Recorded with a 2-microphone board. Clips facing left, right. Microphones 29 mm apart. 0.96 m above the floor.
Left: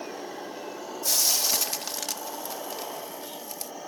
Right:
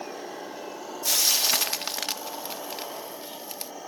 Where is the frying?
35° right (ahead or behind).